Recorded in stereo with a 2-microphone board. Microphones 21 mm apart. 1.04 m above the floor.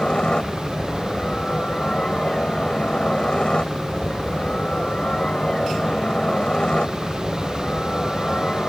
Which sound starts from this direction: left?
A helicopter, at 0.0 s.